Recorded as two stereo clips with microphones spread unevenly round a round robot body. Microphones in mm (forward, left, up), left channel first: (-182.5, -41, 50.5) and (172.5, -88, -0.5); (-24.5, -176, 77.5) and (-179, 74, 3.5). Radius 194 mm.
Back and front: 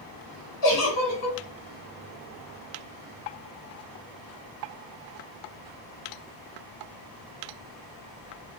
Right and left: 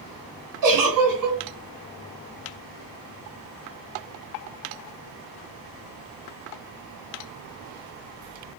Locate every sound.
0.6 s a giggle: 140° left, 1.4 m